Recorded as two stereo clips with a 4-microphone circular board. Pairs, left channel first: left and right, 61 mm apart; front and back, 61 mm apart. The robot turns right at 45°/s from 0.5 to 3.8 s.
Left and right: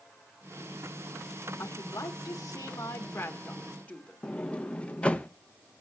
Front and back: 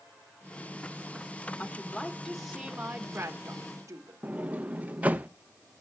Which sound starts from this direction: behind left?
A sliding door, at 4.2 s.